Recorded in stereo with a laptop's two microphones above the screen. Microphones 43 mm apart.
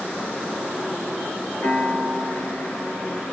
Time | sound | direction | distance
1.6 | a piano | 40° left (ahead or behind) | 0.8 m